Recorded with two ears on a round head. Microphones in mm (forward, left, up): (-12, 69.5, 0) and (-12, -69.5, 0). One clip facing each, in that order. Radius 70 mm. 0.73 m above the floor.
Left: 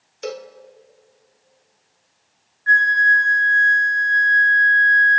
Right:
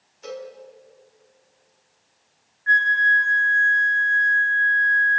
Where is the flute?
40° left (ahead or behind), 2 m.